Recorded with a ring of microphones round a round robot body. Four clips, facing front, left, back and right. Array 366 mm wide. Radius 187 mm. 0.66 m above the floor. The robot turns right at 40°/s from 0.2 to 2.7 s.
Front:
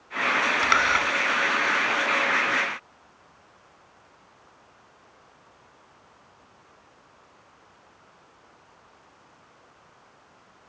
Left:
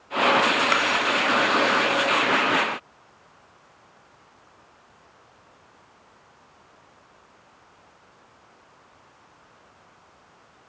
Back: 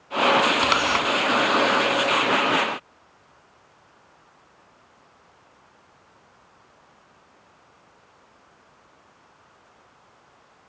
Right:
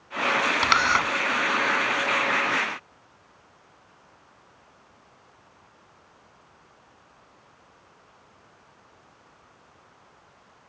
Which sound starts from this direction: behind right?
A camera shutter, at 0.6 s.